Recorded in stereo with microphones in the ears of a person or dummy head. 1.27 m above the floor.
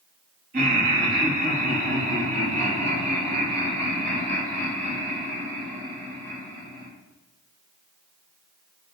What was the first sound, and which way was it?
Laughter, 50° right (ahead or behind).